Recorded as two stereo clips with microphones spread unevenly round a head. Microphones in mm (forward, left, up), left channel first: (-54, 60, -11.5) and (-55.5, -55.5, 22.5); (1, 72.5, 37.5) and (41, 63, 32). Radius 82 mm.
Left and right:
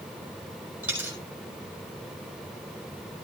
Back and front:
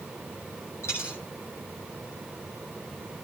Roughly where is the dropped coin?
Behind.